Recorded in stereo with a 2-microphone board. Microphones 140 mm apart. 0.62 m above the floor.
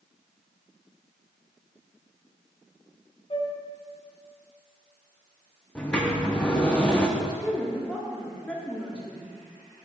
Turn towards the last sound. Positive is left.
turn(degrees=10)  # may be behind; listen again after turning